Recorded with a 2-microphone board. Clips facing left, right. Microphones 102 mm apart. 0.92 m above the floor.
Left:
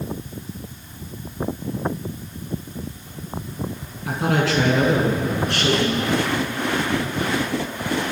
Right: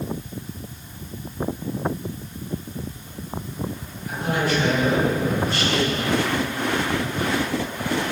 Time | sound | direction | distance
4.1 | a man speaking | 80° left | 8 m